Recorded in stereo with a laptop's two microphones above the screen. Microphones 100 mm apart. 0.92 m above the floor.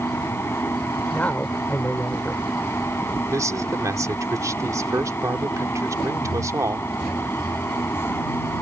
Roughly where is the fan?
Left.